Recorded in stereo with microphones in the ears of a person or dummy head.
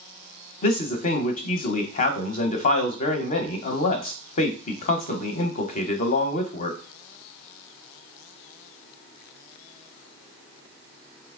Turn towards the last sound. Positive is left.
turn(degrees=40)  # may be behind; listen again after turning